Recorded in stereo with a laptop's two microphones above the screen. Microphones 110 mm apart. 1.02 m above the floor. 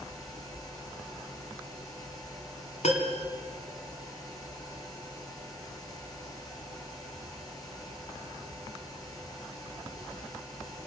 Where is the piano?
65° left (ahead or behind), 2.5 m.